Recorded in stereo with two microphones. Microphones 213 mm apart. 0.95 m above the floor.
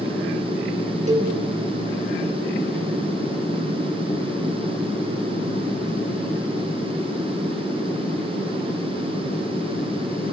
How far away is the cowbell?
About 3 m.